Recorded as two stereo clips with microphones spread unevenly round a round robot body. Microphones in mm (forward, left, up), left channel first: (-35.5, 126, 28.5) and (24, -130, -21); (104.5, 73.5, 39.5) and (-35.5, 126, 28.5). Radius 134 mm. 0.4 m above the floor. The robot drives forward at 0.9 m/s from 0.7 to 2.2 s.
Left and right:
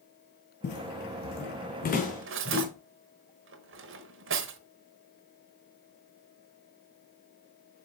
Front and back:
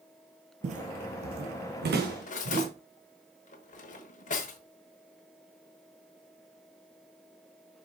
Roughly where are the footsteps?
Behind left.